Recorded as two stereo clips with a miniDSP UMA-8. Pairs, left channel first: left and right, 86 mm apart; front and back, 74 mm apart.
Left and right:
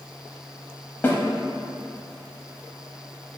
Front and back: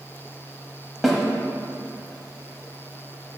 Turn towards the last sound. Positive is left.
turn(degrees=95)